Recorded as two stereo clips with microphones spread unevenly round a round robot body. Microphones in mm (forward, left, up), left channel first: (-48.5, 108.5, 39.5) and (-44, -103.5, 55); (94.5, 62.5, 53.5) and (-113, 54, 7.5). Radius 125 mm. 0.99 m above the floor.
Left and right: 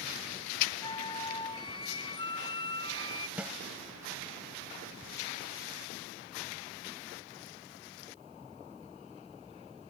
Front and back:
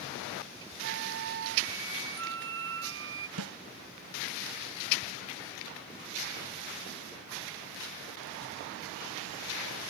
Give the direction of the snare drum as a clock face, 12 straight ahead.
6 o'clock.